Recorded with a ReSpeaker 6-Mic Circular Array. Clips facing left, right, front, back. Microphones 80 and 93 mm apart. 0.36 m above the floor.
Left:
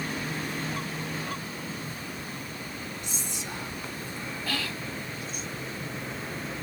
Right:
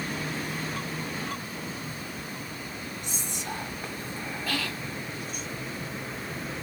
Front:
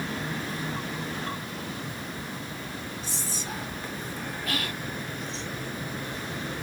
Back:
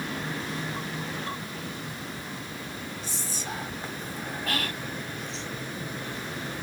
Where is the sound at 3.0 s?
120° right, 2 m.